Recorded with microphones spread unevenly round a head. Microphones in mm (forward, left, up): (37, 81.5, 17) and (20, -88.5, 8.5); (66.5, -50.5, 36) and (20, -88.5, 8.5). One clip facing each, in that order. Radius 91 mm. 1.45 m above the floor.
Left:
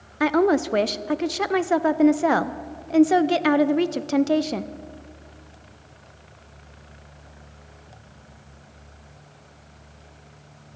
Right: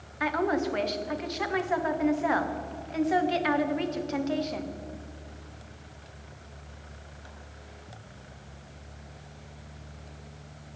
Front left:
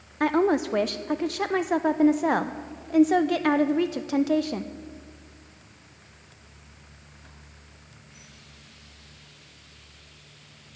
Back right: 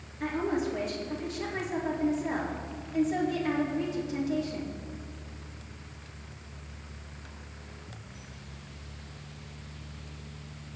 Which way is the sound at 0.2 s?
50° left.